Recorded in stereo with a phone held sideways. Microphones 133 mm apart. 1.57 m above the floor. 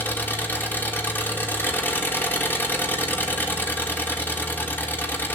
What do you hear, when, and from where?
0.0 s an engine running: 15° left (ahead or behind), 2 m